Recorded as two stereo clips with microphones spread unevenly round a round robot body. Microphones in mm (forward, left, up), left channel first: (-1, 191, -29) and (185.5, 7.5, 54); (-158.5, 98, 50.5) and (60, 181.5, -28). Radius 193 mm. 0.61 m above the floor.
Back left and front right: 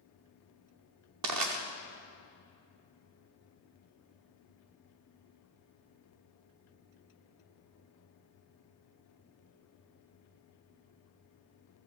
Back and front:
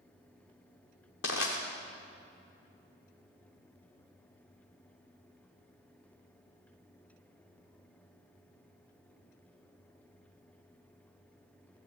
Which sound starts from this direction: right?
Crushing, at 1.2 s.